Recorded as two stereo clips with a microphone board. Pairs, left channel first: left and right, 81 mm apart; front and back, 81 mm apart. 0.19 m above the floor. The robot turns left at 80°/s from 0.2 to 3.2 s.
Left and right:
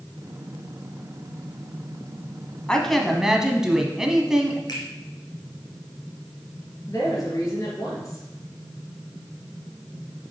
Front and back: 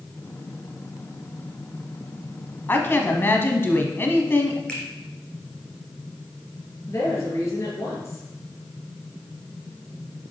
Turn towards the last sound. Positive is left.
turn(degrees=50)